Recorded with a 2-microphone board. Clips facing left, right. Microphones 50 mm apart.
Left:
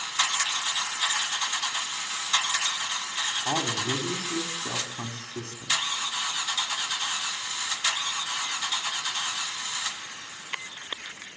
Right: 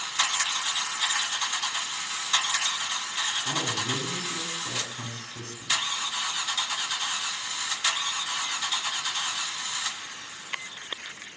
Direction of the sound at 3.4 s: 60° left (ahead or behind).